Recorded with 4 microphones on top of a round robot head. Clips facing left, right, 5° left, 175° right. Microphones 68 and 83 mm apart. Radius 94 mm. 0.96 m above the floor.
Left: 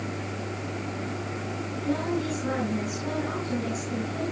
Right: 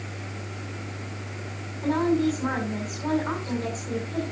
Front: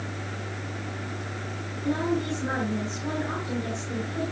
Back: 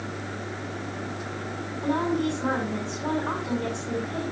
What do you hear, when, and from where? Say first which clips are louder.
1.8 s a woman speaking: right 6 dB, back 2 dB; 140° right, 9 m